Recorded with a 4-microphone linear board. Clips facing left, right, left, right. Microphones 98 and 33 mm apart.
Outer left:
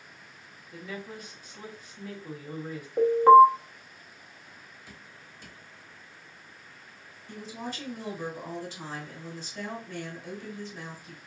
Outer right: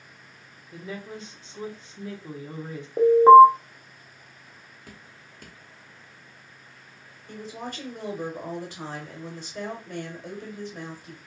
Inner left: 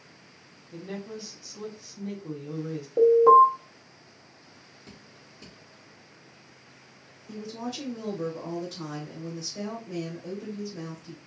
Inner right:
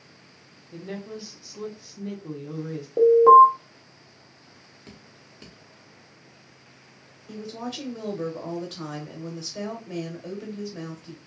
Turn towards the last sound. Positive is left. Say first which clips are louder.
# outer right 2 dB, inner right 1 dB
turn(degrees=-55)  # may be behind; listen again after turning